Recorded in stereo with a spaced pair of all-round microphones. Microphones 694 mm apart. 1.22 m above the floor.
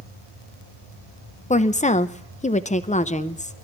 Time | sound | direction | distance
1.5 | a woman speaking | 10° left (ahead or behind) | 0.5 m